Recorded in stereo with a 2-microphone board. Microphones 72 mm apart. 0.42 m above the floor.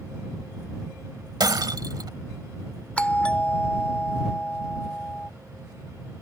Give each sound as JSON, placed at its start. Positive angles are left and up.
{"t": 1.4, "sound": "breaking glass", "side_deg": -70}
{"t": 3.0, "sound": "a doorbell", "side_deg": 15}